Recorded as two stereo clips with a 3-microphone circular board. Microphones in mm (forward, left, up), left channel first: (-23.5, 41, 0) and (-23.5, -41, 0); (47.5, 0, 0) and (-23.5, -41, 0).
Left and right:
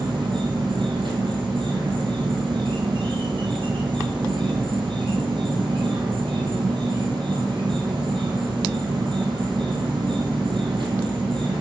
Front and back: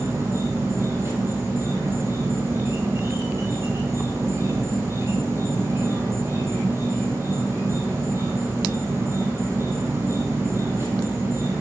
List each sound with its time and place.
0.0 s an insect: 90° right, 1.3 m